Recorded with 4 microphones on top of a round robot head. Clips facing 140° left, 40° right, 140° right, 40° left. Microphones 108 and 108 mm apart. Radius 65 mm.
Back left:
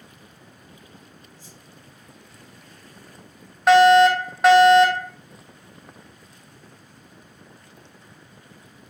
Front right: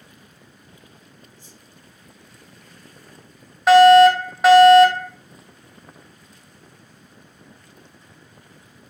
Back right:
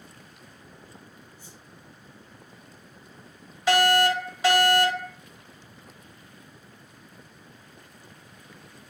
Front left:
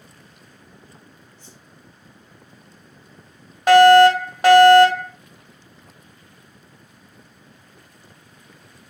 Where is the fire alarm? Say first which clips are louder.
Front right 4 dB, front left 12 dB; 50° left, 3 m.